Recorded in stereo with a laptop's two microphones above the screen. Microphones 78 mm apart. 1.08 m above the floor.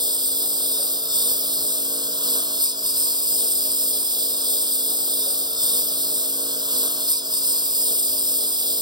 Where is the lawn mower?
70° right (ahead or behind).